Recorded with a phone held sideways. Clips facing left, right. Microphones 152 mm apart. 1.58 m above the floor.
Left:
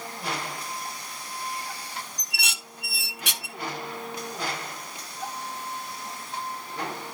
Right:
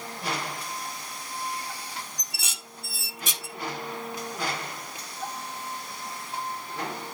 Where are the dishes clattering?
70° left (ahead or behind), 1.5 m.